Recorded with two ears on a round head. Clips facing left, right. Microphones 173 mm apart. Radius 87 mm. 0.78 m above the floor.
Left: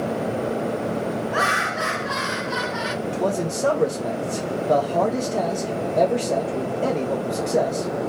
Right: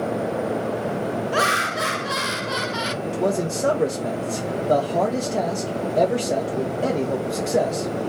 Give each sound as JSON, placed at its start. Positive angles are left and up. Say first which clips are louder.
{"t": 1.3, "sound": "laughter", "louder": "right 1 dB", "side_deg": -40, "distance_m": 0.6}
{"t": 3.0, "sound": "a man speaking", "louder": "right 1 dB", "side_deg": -5, "distance_m": 0.9}